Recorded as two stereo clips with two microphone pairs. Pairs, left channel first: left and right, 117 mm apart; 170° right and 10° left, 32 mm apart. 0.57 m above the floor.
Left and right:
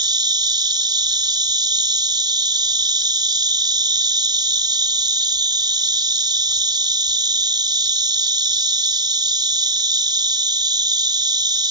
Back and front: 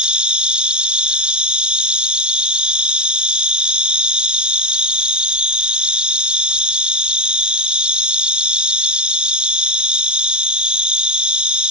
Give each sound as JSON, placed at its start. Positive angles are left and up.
{"t": 0.0, "sound": "an insect", "azimuth_deg": -45}